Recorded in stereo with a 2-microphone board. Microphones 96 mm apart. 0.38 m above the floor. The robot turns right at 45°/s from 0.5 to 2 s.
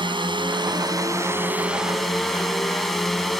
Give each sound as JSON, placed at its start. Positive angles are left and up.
{"t": 0.0, "sound": "a drone", "azimuth_deg": -65}